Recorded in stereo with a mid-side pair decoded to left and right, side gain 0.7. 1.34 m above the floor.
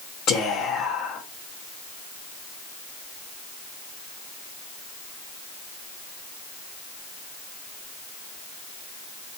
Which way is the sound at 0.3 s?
60° left.